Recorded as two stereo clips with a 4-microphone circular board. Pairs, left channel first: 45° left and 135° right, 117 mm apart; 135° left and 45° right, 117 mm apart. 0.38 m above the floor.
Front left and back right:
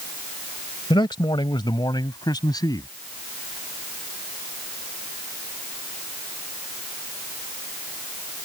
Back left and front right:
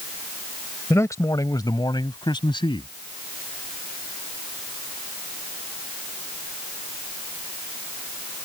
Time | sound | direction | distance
0.9 | a man speaking | 75° left | ?